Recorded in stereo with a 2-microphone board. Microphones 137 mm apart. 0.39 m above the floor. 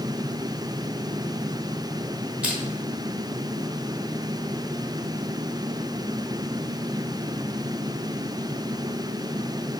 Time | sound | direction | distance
2.4 | crushing | 10° right (ahead or behind) | 0.7 m